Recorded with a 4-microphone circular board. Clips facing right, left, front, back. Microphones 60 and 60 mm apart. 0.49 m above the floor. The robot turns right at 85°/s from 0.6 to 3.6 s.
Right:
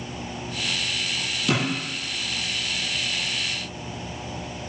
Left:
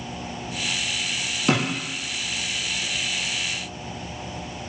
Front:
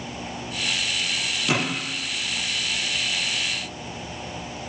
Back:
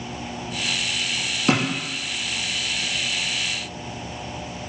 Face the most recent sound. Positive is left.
turn(degrees=-50)